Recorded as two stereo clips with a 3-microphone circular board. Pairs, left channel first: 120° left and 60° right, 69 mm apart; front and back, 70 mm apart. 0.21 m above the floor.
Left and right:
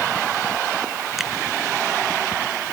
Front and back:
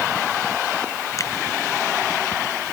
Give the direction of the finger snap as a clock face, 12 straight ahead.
11 o'clock.